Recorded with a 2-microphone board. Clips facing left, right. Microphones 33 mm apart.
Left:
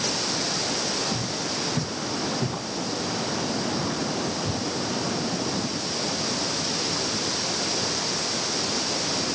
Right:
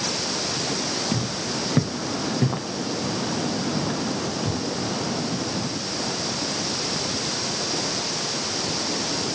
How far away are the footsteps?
About 3 m.